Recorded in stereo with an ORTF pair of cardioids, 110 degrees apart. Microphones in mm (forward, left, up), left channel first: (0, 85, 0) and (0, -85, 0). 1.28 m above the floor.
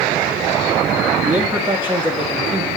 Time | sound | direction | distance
1.2 | a man speaking | 15° right | 1.9 m